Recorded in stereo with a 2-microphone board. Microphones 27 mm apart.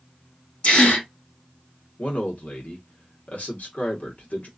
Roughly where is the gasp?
Left.